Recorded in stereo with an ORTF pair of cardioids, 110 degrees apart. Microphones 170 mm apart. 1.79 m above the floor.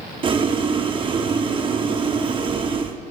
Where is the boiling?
30° right, 1.0 m.